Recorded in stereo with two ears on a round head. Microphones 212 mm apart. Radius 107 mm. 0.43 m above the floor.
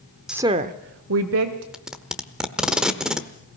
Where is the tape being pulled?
5° right (ahead or behind), 1.0 m.